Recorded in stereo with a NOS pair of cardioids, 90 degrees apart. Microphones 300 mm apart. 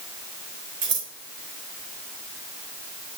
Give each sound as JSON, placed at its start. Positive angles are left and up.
{"t": 0.8, "sound": "scissors", "azimuth_deg": -65, "distance_m": 3.5}